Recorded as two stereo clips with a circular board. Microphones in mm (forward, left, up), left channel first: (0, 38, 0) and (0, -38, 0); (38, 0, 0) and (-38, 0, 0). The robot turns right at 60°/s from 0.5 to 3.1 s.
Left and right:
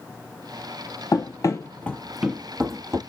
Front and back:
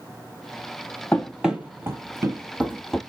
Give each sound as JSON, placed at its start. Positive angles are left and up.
{"t": 1.1, "sound": "running footsteps", "azimuth_deg": 75, "distance_m": 0.9}